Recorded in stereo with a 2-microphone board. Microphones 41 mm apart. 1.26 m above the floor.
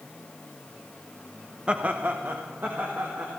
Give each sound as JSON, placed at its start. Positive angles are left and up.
{"t": 1.7, "sound": "laughter", "side_deg": -25, "distance_m": 0.7}